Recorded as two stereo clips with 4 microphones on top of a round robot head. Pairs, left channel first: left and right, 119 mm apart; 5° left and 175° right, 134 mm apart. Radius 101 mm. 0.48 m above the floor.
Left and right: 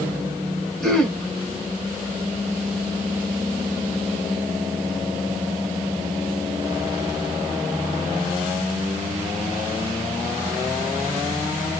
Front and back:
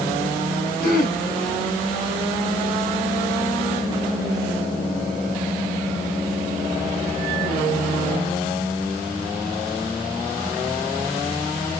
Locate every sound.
0.8 s throat clearing: 5° left, 1.6 m